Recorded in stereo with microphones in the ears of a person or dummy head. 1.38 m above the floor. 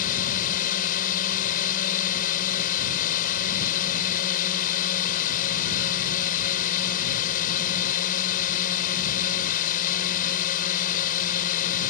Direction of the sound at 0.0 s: 45° left (ahead or behind).